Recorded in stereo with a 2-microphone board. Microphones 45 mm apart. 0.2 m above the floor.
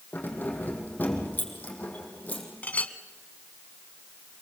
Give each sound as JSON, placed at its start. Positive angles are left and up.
{"t": 0.1, "sound": "keys jangling", "side_deg": 45, "distance_m": 5.5}
{"t": 2.6, "sound": "a clink", "side_deg": 35, "distance_m": 1.3}